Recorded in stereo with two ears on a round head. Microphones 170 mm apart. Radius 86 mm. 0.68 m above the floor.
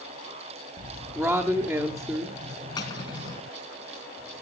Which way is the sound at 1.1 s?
Centre (ahead or behind).